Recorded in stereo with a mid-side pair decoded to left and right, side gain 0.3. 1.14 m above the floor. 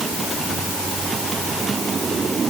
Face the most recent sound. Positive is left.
No sound to turn to.